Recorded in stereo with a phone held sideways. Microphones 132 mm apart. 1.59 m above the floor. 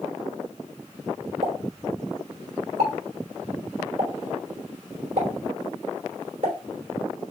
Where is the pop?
60° right (ahead or behind), 3.5 m.